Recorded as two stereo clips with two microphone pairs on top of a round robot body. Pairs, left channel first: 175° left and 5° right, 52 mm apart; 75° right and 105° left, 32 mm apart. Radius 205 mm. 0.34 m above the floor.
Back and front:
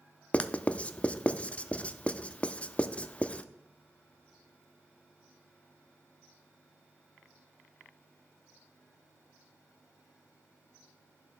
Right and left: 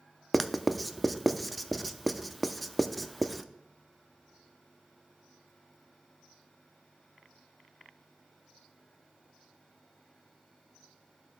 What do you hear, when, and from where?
0.3 s writing: 155° right, 0.7 m